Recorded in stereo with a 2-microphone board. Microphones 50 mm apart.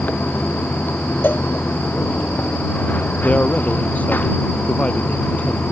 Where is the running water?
40° left (ahead or behind).